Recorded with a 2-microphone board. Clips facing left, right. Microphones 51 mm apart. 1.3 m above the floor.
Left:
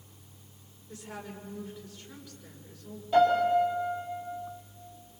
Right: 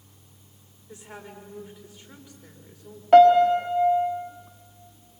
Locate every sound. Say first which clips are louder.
0.9 s a woman speaking: even; 20° right (ahead or behind), 6 m
3.1 s a piano: right 9 dB; 65° right (ahead or behind), 3 m